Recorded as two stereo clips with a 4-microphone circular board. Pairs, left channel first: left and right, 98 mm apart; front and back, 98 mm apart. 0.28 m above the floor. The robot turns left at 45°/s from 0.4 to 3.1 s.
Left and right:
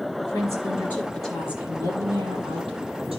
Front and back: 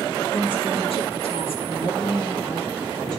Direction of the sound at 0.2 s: 40° left.